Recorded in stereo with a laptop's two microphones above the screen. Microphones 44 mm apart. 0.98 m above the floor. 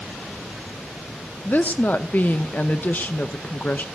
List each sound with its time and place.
1.4 s a woman speaking: 45° left (ahead or behind), 0.8 m